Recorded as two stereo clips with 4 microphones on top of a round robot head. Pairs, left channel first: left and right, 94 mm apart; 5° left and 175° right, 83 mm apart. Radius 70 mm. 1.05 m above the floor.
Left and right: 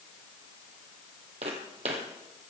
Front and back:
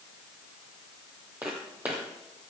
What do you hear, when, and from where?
1.4 s footsteps: 95° right, 2 m